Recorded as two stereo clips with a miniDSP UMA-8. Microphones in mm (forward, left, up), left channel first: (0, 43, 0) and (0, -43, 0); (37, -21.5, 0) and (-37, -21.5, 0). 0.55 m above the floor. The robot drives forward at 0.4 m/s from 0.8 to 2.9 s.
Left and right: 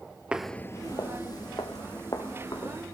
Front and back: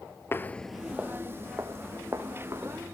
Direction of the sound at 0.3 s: 20° right.